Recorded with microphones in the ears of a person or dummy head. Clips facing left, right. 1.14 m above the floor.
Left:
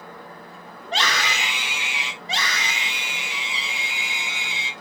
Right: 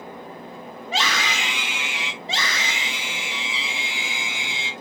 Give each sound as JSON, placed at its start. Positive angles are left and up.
{"t": 0.8, "sound": "a scream", "side_deg": -5, "distance_m": 1.1}
{"t": 2.2, "sound": "a scream", "side_deg": -20, "distance_m": 5.0}